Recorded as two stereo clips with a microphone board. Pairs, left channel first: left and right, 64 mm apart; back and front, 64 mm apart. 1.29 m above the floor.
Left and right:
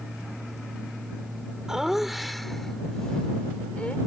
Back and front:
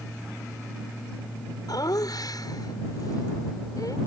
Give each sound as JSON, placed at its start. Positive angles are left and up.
{"t": 1.7, "sound": "laughter", "azimuth_deg": -175}